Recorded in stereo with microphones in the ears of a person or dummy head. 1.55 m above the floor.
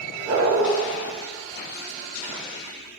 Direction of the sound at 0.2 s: 40° right (ahead or behind).